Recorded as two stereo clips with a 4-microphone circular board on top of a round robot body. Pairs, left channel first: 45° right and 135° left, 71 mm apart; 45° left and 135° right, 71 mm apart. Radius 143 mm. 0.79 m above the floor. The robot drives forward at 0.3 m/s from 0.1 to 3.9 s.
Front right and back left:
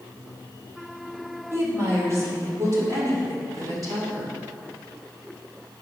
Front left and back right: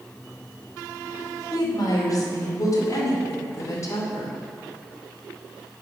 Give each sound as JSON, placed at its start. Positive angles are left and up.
{"t": 1.5, "sound": "a woman speaking", "azimuth_deg": 80, "distance_m": 2.5}